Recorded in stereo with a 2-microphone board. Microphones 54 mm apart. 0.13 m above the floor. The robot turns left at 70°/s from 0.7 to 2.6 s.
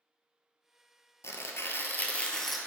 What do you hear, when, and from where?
1.2 s tearing paper: 95° left, 0.6 m; by 2.6 s straight ahead, 0.6 m